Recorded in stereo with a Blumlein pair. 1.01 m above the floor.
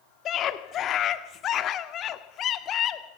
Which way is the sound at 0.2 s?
30° left.